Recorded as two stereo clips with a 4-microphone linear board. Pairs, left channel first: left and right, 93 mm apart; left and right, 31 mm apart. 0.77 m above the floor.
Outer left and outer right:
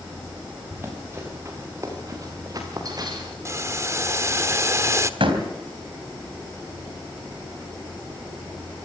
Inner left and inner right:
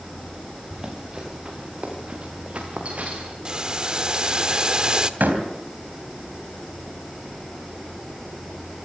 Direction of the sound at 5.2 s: 75° right (ahead or behind).